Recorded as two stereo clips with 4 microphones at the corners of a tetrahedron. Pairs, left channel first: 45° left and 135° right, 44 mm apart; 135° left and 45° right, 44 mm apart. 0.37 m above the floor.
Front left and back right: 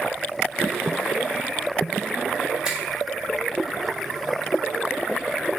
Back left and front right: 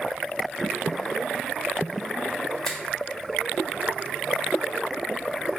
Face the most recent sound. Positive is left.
turn(degrees=-165)